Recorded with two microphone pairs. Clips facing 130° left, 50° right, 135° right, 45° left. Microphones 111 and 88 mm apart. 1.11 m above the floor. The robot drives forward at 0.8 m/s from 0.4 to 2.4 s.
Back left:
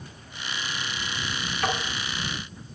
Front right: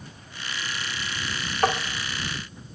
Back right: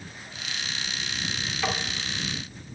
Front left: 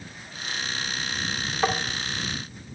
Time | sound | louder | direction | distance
1.6 | tapping | front right 5 dB, front left 5 dB | 10° right | 1.0 m